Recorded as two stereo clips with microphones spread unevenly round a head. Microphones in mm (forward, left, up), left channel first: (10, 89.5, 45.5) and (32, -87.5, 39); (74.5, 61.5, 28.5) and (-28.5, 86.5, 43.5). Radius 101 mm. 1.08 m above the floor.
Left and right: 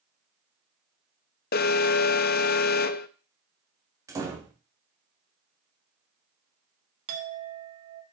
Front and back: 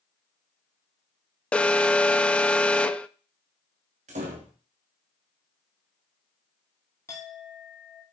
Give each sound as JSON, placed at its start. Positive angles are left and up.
{"t": 1.5, "sound": "an alarm", "azimuth_deg": 70, "distance_m": 0.5}
{"t": 4.1, "sound": "a door slam", "azimuth_deg": -155, "distance_m": 1.7}
{"t": 7.1, "sound": "a clink", "azimuth_deg": -90, "distance_m": 1.6}